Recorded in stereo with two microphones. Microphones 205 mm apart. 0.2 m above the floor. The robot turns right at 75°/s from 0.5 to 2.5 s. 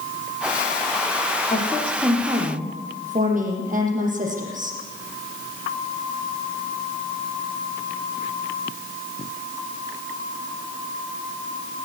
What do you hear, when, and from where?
1.5 s a woman speaking: 145° left, 8 m; by 4.8 s 140° right, 8 m